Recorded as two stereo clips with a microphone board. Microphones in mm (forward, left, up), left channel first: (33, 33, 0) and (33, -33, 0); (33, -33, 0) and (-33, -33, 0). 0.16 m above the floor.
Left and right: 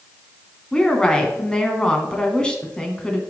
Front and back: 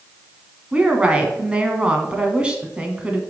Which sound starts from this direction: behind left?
A woman speaking, at 0.7 s.